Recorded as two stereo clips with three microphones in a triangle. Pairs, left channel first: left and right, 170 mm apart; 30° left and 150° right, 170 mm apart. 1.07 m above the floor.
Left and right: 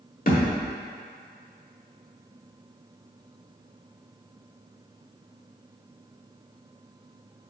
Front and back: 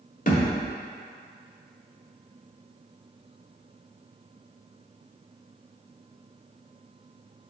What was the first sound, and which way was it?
A thud, 60° left.